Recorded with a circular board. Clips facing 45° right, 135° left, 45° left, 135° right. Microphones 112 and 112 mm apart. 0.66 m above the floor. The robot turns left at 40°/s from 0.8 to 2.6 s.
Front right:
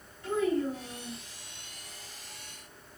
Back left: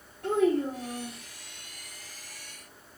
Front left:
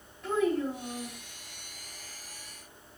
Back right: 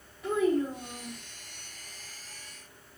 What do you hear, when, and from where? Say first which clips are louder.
0.2 s a child speaking: back left 4 dB, back right 1 dB; 140° left, 1.4 m; by 1.2 s 125° left, 1.4 m